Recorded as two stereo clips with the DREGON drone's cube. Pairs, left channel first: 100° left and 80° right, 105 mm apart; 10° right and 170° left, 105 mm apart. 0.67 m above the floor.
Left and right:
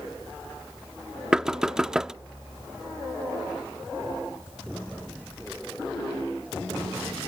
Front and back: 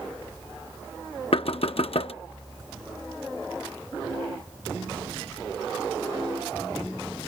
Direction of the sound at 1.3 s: 5° left.